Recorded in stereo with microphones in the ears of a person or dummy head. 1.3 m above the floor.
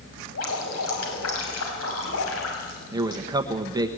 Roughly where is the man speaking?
Centre.